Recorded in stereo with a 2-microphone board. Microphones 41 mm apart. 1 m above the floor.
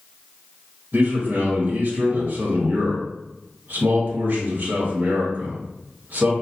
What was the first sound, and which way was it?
A man speaking, 50° right (ahead or behind).